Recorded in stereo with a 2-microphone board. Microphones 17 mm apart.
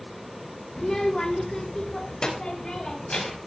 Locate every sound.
0.8 s a child speaking: 25° left (ahead or behind), 1.5 m; by 3.4 s 55° left (ahead or behind), 5 m